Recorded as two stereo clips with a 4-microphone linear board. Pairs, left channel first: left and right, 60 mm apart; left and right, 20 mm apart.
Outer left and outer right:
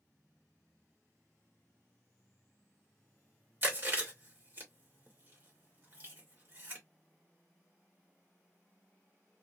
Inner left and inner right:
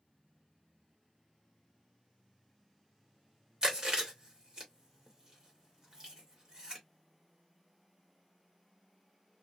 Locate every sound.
3.6 s chewing: 40° right (ahead or behind), 1.4 m